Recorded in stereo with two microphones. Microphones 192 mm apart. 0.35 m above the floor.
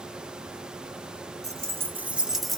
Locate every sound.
1.4 s keys jangling: 15° right (ahead or behind), 0.7 m; by 2.6 s centre (ahead or behind), 0.5 m